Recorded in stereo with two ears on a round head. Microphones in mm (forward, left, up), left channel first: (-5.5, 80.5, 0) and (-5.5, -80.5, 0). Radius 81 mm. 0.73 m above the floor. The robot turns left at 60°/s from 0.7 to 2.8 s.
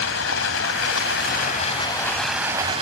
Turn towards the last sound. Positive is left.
turn(degrees=-30)